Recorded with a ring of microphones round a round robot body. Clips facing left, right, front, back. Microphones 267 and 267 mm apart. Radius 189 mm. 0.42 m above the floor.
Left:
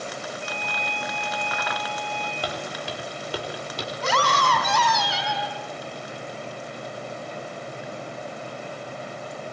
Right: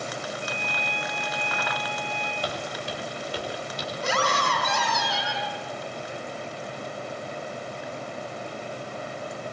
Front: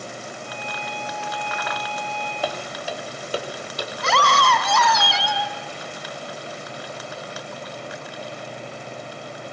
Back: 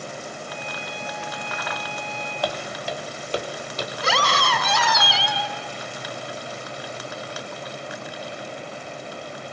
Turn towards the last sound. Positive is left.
turn(degrees=95)